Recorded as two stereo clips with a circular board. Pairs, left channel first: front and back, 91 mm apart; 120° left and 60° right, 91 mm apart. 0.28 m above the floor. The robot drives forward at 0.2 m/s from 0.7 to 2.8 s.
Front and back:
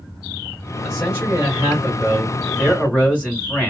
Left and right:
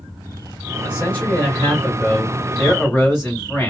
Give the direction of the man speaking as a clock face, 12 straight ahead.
9 o'clock.